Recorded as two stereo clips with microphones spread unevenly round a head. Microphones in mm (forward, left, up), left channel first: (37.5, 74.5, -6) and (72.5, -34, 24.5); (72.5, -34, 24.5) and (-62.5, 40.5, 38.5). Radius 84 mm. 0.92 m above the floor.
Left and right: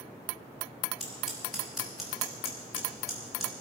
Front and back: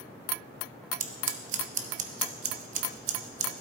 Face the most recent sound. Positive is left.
turn(degrees=-165)